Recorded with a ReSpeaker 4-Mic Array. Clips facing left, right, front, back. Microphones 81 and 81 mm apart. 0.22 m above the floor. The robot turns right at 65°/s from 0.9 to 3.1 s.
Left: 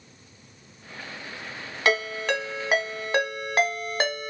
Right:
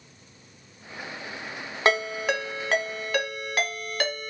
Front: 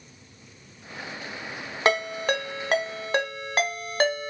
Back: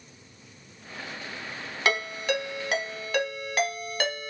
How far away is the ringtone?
About 0.6 m.